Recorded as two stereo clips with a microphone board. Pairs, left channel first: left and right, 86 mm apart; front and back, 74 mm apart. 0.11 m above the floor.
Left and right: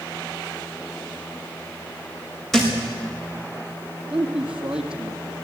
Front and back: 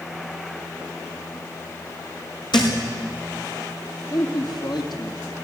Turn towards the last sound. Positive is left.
turn(degrees=-10)